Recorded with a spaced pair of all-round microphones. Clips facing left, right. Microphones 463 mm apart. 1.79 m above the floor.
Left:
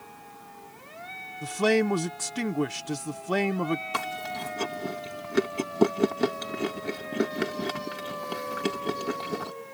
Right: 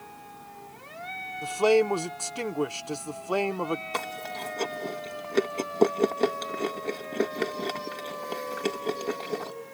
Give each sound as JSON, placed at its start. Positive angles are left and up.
{"t": 1.4, "sound": "a man speaking", "side_deg": 35}
{"t": 3.9, "sound": "chewing", "side_deg": 30}